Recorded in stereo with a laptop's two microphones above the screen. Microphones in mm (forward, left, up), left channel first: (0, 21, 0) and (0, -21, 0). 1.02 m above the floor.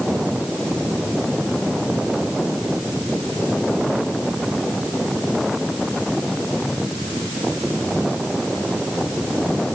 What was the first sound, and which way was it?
Only background noise.